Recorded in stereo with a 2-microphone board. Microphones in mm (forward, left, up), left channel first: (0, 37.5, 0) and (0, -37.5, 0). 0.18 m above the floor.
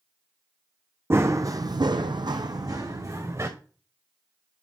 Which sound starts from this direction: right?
Running footsteps, at 1.1 s.